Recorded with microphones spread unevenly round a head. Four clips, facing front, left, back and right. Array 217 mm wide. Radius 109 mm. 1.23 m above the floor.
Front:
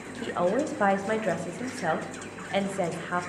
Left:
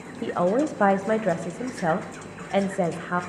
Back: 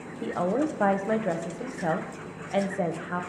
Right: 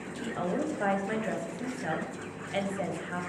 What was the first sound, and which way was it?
A woman speaking, 95° left.